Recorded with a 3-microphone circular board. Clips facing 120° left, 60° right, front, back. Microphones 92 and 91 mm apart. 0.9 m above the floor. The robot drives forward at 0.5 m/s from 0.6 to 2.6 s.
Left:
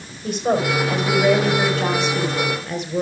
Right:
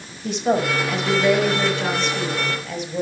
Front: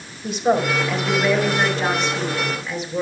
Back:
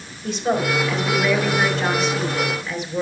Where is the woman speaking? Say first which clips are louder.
Even, front 2 dB; 85° left, 4 m; by 3.0 s 100° left, 4 m.